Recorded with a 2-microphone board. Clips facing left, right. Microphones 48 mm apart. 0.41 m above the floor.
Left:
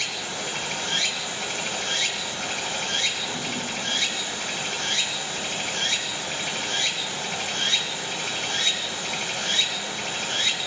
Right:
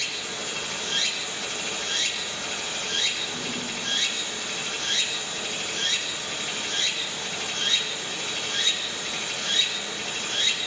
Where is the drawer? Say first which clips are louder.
Left 2 dB; 15° left (ahead or behind), 3 m.